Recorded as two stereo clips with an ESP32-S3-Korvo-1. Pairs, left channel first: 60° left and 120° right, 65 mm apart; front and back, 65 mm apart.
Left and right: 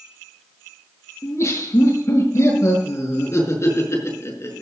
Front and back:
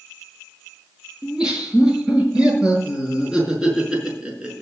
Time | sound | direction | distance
1.2 | laughter | 105° left | 7 m